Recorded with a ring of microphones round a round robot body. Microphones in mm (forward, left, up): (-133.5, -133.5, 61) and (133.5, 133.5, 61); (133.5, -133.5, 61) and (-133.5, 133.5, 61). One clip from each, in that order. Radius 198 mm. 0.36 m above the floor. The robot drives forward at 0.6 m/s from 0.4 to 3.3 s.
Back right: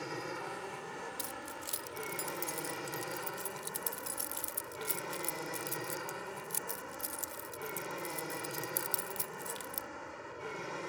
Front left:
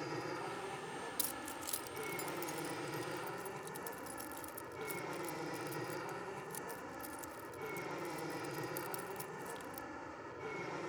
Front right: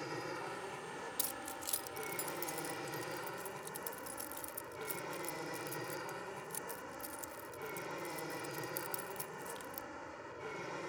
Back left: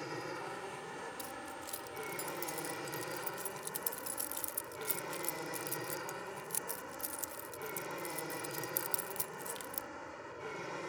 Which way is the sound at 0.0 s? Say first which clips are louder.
Back right 2 dB, back left 1 dB; 130° right.